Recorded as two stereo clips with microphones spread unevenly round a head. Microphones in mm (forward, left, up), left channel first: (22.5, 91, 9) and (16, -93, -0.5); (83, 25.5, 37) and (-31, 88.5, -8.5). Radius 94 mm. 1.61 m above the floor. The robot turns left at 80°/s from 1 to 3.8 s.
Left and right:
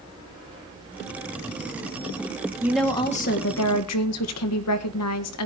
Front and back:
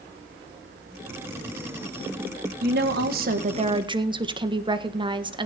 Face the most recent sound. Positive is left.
turn(degrees=95)